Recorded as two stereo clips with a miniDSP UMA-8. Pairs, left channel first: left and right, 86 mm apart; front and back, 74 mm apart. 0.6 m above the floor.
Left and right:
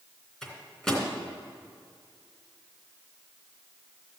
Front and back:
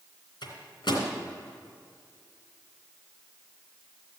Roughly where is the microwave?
Ahead.